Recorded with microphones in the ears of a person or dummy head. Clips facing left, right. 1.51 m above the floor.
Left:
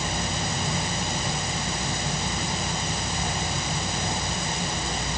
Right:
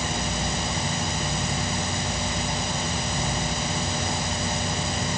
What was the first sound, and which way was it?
Only background noise.